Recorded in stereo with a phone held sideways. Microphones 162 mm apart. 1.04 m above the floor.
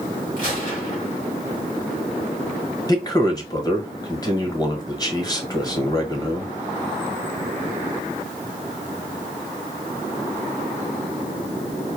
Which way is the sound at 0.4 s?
55° left (ahead or behind).